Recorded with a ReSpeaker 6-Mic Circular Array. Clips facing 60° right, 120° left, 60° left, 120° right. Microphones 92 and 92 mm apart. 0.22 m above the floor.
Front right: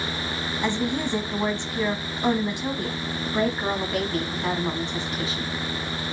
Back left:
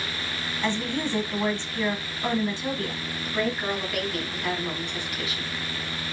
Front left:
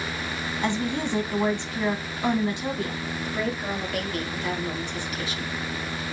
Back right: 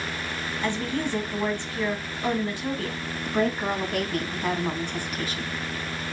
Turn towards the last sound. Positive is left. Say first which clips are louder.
# front right 3 dB, back right 5 dB
turn(degrees=-105)